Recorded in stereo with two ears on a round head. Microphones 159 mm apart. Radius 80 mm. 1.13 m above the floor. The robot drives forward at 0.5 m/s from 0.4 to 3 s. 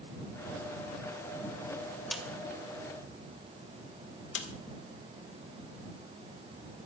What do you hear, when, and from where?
2.1 s a snare drum: centre (ahead or behind), 1.8 m
4.3 s a snare drum: 80° left, 1.8 m